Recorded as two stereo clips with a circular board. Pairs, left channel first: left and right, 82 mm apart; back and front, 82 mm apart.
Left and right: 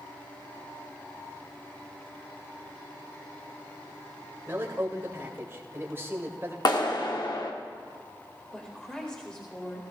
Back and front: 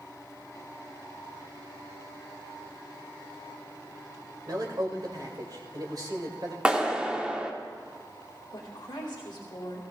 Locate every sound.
4.5 s a man speaking: 30° right, 2.5 m
6.7 s a clap: 75° left, 1.3 m
8.5 s a woman speaking: 165° left, 2.5 m